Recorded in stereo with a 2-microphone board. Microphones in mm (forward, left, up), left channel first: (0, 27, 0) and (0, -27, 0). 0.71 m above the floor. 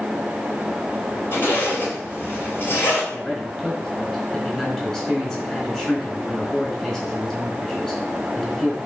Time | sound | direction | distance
1.3 | a zipper | 45° left (ahead or behind) | 2.5 m
3.1 | a man speaking | 15° left (ahead or behind) | 4 m